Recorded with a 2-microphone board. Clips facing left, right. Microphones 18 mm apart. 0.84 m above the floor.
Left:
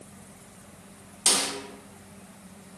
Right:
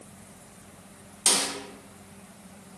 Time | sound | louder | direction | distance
1.3 | a snare drum | even | 10° left (ahead or behind) | 0.6 m